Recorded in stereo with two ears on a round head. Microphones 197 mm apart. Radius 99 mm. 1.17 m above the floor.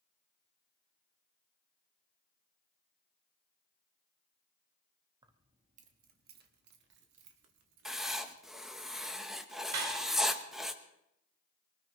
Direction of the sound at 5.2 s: 20° right (ahead or behind).